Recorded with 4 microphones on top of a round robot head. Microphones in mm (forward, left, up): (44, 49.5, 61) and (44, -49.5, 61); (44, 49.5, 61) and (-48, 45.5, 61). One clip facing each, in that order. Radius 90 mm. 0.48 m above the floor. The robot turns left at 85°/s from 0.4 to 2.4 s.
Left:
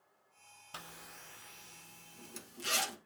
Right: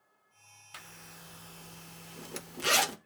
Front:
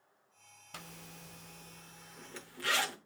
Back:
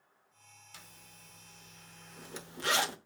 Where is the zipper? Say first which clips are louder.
Left 1 dB, front 9 dB; 30° left, 0.6 m; by 3.0 s 110° right, 0.6 m.